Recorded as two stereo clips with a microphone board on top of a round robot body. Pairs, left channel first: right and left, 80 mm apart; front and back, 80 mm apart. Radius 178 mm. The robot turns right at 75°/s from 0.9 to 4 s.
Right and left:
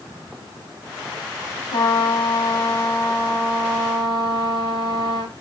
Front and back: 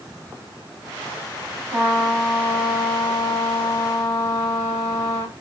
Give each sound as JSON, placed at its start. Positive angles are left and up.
{"t": 1.7, "sound": "a trumpet", "azimuth_deg": -115, "distance_m": 3.5}